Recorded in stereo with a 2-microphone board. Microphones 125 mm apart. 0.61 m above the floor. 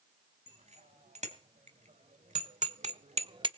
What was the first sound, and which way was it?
A bicycle bell, 65° right (ahead or behind).